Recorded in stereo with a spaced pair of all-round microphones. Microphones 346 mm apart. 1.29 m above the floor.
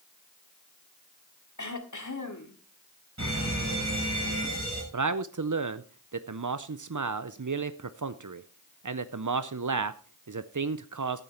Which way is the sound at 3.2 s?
50° right (ahead or behind).